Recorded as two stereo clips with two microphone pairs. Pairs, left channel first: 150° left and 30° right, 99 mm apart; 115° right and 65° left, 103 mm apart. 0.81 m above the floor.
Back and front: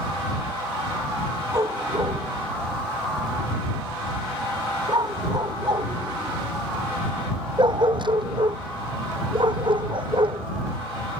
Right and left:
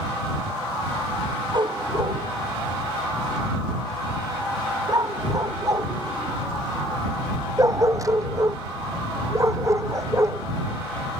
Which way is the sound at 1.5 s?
25° left.